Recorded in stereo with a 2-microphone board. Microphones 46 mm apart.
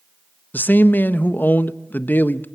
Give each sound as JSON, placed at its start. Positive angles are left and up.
{"t": 0.5, "sound": "a man speaking", "side_deg": 45, "distance_m": 1.0}